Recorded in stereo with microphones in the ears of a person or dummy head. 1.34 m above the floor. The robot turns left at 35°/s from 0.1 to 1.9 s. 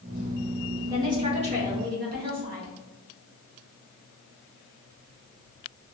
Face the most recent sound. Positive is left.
turn(degrees=-50)